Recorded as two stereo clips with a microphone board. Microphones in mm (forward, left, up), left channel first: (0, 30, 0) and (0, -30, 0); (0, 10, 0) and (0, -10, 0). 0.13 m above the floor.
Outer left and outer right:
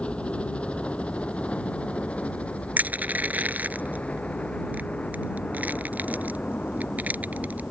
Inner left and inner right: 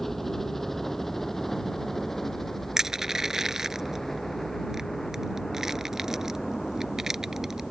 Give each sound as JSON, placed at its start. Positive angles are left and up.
{"t": 0.0, "sound": "a helicopter", "side_deg": 15}
{"t": 2.8, "sound": "crushing", "side_deg": -25}